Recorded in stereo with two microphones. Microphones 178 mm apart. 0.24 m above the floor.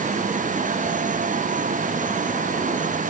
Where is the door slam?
No door slam in this recording.